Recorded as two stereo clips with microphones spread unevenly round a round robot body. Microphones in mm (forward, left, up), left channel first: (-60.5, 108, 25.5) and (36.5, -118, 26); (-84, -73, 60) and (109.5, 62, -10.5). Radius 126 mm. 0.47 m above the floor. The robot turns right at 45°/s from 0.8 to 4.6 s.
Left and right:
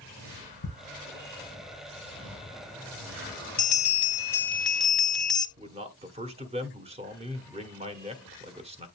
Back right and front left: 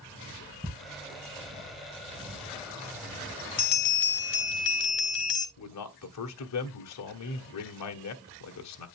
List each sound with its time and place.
0.6 s ticking: 125° left, 4.5 m
3.6 s a bell: 155° left, 1.7 m; by 5.5 s 160° right, 1.7 m
5.6 s a man speaking: 130° right, 1.7 m